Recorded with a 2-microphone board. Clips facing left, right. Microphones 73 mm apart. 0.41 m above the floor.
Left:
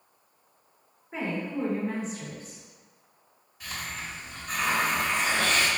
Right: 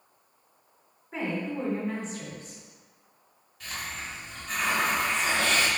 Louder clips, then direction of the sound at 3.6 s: Even; 10° left (ahead or behind).